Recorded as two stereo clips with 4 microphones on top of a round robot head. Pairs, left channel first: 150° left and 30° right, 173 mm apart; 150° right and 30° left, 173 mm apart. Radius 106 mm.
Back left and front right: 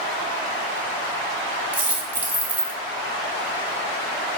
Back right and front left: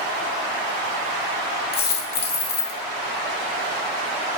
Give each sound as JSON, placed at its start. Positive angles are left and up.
{"t": 1.7, "sound": "a dropped coin", "azimuth_deg": -110, "distance_m": 2.5}